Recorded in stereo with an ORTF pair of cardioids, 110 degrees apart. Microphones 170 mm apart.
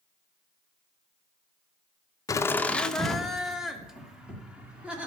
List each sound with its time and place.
2.3 s laughter: 20° left, 0.6 m; by 5.1 s 10° right, 3 m